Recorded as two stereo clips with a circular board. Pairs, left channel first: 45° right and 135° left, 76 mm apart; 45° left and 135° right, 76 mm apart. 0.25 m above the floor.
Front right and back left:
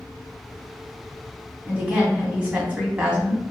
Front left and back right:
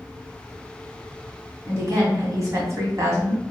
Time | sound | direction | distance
1.7 | a woman speaking | 155° right | 1.7 m